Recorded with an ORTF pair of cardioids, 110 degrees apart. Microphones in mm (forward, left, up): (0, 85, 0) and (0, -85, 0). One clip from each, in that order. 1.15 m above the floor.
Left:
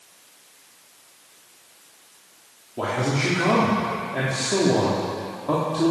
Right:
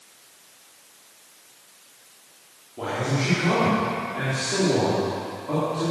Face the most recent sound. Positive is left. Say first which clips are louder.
# left 2 dB
turn(degrees=45)